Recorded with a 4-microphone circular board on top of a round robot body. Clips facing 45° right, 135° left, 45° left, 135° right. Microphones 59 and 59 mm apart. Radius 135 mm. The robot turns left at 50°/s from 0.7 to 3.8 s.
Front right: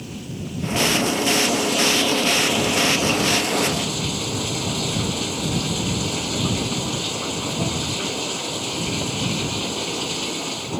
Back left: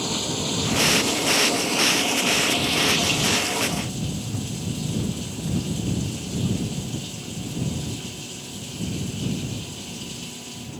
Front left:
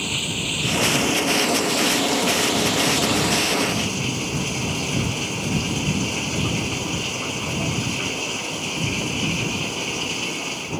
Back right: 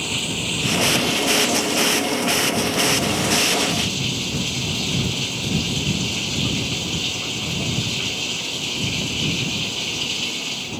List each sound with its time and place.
0.0 s running water: 135° left; by 10.8 s 20° right